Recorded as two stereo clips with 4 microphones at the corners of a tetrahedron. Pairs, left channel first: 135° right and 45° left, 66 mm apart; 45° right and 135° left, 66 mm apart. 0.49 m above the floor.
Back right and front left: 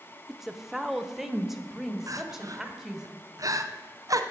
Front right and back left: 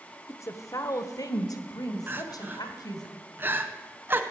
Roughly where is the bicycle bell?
I don't hear a bicycle bell.